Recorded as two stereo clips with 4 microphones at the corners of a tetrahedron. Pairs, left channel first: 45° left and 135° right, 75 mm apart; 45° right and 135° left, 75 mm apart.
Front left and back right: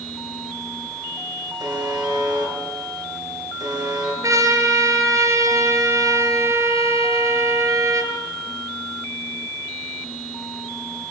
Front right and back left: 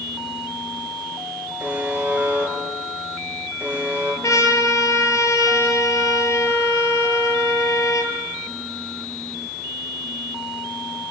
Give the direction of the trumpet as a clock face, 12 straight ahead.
3 o'clock.